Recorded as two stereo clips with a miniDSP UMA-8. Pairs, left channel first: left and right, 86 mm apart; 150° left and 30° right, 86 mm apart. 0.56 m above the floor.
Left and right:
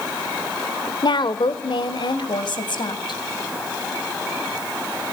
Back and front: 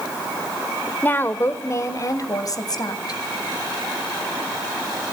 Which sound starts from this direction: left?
A woman speaking, at 1.0 s.